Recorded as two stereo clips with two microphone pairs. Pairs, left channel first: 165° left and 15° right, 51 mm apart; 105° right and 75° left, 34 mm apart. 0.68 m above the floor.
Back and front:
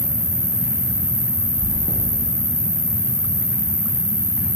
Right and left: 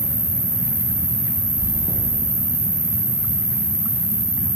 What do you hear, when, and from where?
0.0 s an insect: 25° left, 1.7 m
1.6 s chewing: 120° left, 3 m